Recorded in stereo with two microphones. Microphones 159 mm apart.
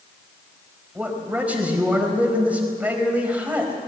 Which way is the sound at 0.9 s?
10° right (ahead or behind).